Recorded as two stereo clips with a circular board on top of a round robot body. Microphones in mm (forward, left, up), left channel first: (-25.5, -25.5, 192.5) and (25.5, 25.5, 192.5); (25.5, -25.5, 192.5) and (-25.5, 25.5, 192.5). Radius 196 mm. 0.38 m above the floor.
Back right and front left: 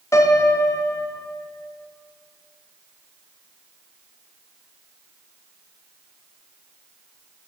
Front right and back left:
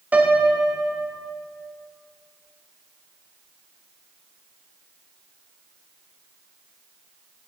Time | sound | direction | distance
0.1 | a piano | 160° right | 1.5 m